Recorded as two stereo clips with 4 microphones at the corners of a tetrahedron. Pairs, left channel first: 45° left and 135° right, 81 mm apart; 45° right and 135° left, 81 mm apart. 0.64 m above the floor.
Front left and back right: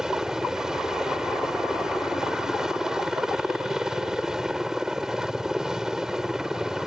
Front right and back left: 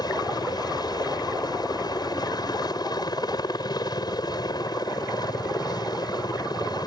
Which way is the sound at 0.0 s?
50° right.